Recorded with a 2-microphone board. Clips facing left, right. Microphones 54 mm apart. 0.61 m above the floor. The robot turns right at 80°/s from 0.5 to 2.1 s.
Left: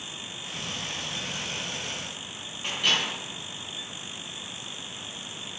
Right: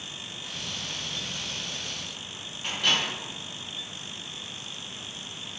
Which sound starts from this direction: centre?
A microwave, at 2.6 s.